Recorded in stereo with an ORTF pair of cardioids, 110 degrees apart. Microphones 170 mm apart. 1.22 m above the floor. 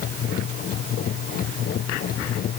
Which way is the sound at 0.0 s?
60° left.